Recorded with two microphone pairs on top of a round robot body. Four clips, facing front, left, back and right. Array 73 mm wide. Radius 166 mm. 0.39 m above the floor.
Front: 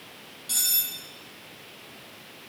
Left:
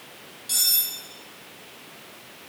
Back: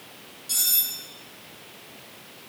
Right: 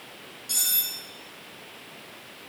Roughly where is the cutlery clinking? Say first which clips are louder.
Left 2 dB, even; ahead left.